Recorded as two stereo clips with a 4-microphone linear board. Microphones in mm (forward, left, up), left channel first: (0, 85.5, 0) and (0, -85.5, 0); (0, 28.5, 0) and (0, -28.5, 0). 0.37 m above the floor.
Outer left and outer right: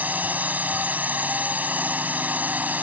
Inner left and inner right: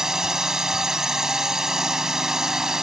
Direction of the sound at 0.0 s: 10° right (ahead or behind).